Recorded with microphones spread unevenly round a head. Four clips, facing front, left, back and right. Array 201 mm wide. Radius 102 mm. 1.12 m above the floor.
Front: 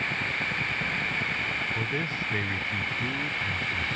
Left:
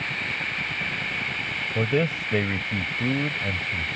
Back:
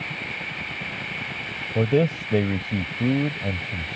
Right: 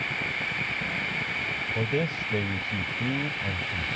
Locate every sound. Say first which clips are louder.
1.8 s a man speaking: left 5 dB, back 17 dB; 165° left